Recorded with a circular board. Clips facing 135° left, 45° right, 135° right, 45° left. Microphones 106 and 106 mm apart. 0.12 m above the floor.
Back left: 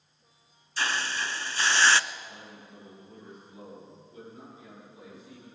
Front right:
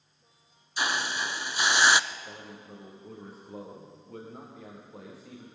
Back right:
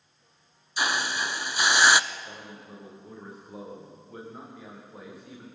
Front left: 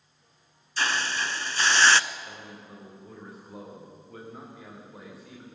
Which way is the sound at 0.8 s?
85° right.